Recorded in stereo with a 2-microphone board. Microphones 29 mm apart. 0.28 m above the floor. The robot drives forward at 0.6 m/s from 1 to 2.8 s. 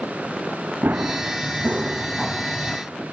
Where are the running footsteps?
80° right, 1.2 m; by 2.8 s 15° left (ahead or behind), 0.8 m.